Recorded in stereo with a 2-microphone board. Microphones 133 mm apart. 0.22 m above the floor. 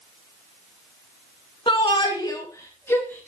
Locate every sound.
1.7 s a shout: 40° left (ahead or behind), 2.5 m; by 3.3 s 15° left (ahead or behind), 3.5 m